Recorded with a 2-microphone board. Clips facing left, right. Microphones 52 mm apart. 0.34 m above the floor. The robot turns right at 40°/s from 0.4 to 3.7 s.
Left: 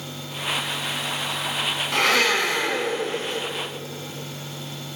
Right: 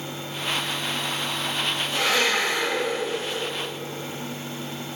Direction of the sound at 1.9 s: 80° left.